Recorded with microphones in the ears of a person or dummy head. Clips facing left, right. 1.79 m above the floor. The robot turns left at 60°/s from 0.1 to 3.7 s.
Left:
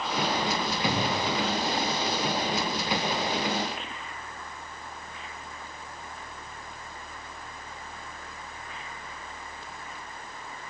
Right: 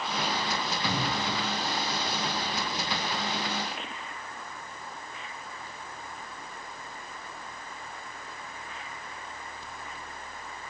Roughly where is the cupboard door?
Centre.